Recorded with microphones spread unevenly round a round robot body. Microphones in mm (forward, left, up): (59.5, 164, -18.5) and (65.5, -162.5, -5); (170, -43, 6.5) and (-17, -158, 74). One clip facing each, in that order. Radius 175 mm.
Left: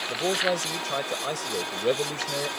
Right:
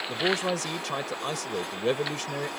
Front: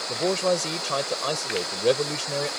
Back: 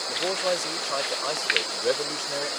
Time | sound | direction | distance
0.1 | a man speaking | 10° right | ?